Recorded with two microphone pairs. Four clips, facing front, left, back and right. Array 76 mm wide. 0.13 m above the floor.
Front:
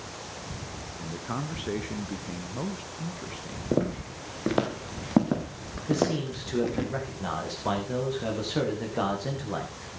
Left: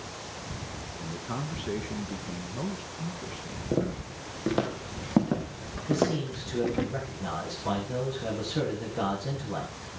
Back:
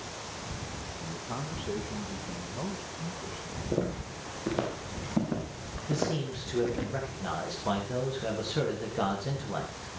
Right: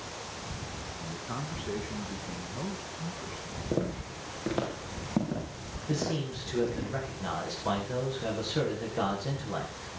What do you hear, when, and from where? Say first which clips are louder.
1.0 s a man speaking: left 3 dB, front 5 dB; 5° left, 1.5 m
3.7 s footsteps: left 3 dB, front 5 dB; 10° right, 4.5 m; by 6.9 s 50° left, 4.5 m
5.9 s a man speaking: left 5 dB, front 5 dB; 20° right, 9.5 m